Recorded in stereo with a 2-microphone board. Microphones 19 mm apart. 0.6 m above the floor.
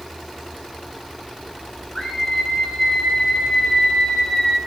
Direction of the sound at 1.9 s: 40° left (ahead or behind).